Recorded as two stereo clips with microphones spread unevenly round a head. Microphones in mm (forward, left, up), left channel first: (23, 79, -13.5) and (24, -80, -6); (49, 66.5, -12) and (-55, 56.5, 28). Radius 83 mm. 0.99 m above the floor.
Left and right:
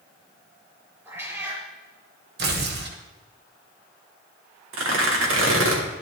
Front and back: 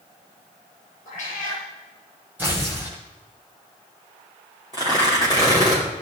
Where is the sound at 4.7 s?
100° right, 2.5 m.